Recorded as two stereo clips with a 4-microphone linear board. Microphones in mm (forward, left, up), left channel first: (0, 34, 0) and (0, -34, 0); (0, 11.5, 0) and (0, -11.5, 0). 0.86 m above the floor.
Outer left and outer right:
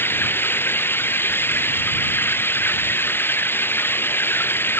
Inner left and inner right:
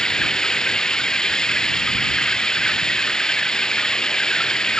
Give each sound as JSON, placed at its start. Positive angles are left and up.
{"t": 0.0, "sound": "running water", "side_deg": 30}